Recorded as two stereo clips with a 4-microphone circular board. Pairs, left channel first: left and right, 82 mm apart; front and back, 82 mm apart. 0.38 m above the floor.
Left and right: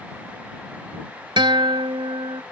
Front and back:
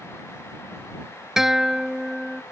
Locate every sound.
1.4 s a guitar: 95° right